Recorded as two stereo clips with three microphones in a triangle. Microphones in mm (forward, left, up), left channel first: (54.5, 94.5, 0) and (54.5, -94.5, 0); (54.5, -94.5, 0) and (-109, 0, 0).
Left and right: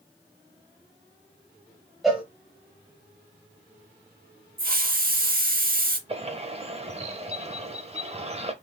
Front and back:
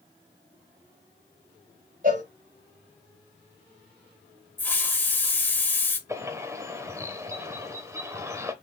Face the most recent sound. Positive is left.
turn(degrees=-135)